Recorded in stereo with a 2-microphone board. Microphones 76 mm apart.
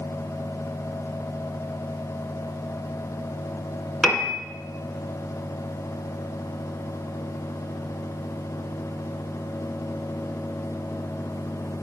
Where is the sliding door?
No sliding door in this recording.